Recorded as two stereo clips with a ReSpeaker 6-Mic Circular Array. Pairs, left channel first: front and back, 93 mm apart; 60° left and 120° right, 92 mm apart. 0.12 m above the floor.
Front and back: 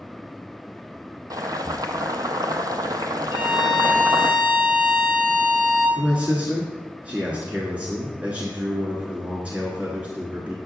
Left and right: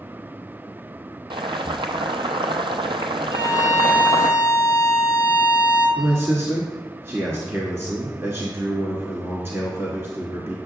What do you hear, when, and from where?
1.3 s boiling: 135° right, 0.6 m
3.3 s a violin: 110° right, 2 m
6.0 s a man speaking: 125° right, 1.2 m